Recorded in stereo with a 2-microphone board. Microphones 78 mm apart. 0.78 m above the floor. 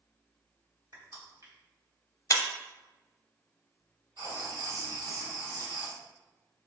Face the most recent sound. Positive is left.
turn(degrees=-70)  # may be behind; listen again after turning